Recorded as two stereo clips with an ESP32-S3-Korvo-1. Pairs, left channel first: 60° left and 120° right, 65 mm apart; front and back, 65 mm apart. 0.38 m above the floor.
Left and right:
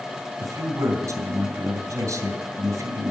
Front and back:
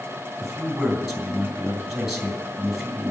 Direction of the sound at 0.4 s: 95° right.